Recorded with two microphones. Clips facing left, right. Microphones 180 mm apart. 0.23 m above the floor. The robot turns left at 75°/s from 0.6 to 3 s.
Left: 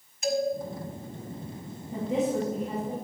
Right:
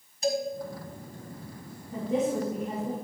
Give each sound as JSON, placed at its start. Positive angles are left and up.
{"t": 0.2, "sound": "a man speaking", "side_deg": -35, "distance_m": 1.9}
{"t": 1.9, "sound": "a woman speaking", "azimuth_deg": 30, "distance_m": 4.0}